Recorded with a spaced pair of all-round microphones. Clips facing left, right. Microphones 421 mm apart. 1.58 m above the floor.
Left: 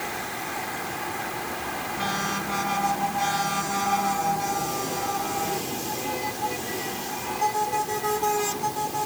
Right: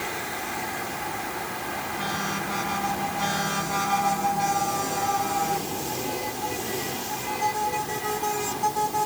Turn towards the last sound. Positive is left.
No sound to turn to.